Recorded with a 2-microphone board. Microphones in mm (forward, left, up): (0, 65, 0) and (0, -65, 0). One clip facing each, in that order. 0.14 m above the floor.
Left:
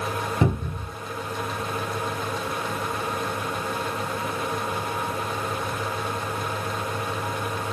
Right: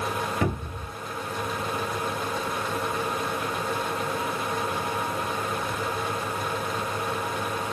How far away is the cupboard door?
About 0.8 m.